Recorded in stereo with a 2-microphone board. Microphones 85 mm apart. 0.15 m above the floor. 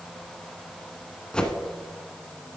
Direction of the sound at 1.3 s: 10° left (ahead or behind).